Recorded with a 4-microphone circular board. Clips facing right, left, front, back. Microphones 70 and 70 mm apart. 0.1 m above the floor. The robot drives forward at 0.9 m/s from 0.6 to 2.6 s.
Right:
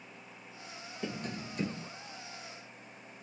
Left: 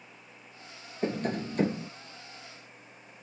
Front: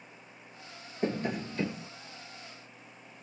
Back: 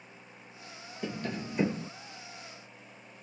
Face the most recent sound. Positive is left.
turn(degrees=160)